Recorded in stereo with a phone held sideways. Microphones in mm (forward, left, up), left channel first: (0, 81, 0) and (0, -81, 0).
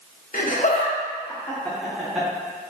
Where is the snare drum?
No snare drum in this recording.